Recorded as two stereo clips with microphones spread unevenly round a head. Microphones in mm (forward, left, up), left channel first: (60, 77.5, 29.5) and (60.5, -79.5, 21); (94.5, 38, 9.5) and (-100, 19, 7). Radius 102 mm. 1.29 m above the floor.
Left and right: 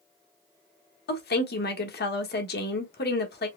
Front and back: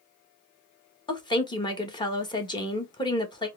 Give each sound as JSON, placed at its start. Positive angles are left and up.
{"t": 1.1, "sound": "a woman speaking", "azimuth_deg": 75, "distance_m": 1.4}